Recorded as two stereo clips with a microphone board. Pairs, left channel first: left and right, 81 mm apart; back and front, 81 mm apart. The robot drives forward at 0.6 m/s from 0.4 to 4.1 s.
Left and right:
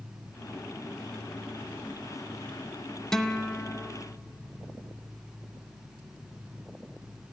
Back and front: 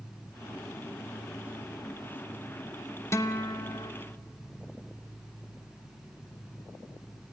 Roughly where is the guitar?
Behind.